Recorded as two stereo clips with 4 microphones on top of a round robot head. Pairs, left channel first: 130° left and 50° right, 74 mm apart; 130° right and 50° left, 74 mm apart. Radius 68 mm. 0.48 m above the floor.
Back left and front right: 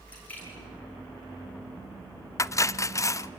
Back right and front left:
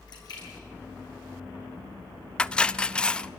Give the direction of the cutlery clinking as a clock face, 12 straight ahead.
7 o'clock.